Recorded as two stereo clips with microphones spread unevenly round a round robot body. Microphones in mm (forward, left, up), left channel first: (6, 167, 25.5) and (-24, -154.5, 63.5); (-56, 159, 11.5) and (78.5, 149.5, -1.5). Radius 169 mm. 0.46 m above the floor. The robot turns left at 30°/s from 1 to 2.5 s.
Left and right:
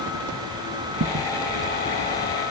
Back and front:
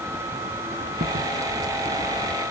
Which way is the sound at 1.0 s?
40° right.